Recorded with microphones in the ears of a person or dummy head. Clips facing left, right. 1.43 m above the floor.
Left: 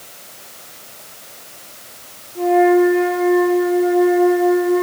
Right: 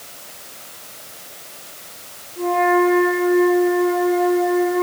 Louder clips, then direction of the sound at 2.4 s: Left 5 dB; 65° left (ahead or behind).